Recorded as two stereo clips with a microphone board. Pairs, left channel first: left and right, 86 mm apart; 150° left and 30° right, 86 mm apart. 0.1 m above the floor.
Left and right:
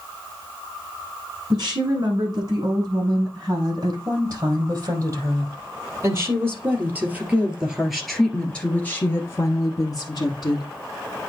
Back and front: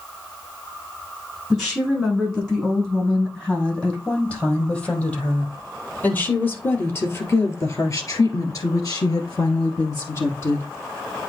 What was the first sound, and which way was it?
A woman speaking, 125° right.